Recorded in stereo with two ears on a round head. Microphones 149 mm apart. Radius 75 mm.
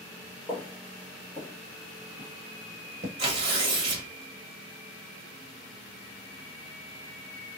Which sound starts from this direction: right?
Tearing paper, at 3.2 s.